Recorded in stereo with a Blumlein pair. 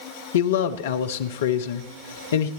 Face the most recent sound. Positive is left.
turn(degrees=60)